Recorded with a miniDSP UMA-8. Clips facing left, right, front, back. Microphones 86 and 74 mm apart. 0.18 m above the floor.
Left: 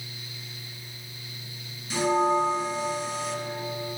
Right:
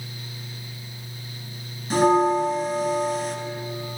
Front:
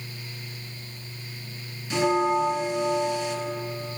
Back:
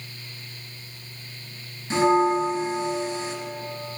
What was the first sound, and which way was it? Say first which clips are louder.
A bell: right 5 dB, back 3 dB; 125° right.